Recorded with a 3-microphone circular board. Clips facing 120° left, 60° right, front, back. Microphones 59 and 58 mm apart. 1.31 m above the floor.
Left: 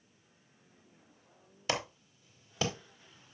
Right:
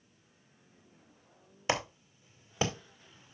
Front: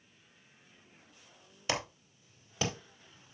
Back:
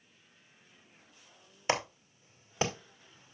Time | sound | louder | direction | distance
1.7 | a clap | right 3 dB, back 4 dB | 120° right | 2.5 m